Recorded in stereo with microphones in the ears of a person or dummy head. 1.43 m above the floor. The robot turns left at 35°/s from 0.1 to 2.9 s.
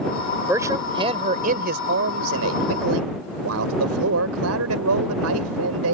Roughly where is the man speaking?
Ahead.